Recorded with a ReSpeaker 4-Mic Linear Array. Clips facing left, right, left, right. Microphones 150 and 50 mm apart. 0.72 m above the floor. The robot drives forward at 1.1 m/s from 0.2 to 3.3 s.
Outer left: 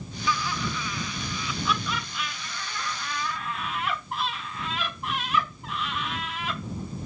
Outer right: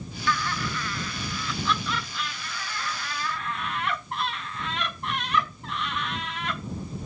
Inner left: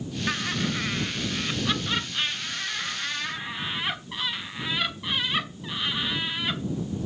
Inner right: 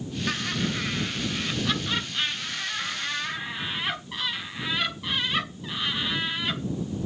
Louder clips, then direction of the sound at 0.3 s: Even, inner left 1 dB; 10° left (ahead or behind).